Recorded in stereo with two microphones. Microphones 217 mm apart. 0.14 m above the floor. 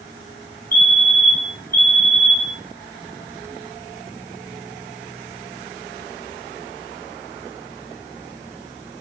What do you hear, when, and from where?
0.7 s a fire alarm: 45° left (ahead or behind), 4 m